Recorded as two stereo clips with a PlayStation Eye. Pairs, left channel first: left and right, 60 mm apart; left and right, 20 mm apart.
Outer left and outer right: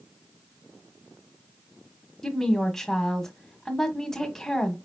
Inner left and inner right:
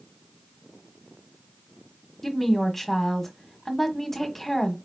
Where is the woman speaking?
5° left (ahead or behind), 1.2 m.